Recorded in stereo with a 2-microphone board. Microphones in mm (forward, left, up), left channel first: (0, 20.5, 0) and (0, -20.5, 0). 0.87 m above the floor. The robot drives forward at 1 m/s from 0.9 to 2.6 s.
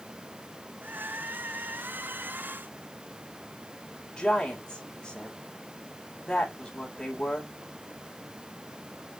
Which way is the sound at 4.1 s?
20° left (ahead or behind).